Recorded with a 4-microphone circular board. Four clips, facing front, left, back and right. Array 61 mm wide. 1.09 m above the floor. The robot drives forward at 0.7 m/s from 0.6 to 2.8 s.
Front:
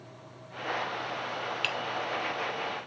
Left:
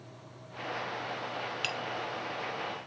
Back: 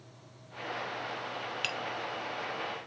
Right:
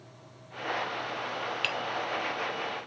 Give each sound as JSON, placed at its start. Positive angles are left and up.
{"t": 1.6, "sound": "tapping", "azimuth_deg": -45}